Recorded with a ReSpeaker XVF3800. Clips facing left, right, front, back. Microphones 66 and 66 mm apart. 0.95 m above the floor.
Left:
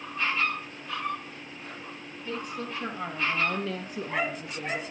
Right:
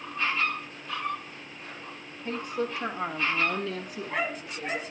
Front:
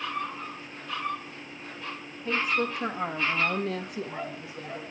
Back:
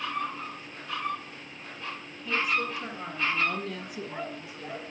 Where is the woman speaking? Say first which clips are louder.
Right 4 dB, front 1 dB; 45° right, 1.7 m; by 4.8 s 60° left, 2 m.